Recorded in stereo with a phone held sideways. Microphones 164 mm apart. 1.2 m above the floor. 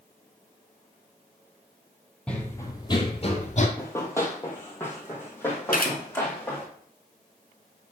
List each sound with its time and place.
2.3 s running footsteps: 5° left (ahead or behind), 1.4 m; by 3.7 s 50° left (ahead or behind), 1.7 m
3.8 s running footsteps: 15° left (ahead or behind), 1.8 m
5.7 s a camera shutter: 65° left (ahead or behind), 2 m